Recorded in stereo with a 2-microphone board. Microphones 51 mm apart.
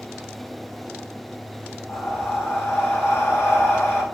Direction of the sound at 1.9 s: 55° left (ahead or behind).